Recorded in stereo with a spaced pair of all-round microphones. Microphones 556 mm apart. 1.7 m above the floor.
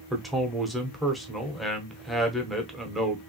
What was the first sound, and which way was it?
A man speaking, centre (ahead or behind).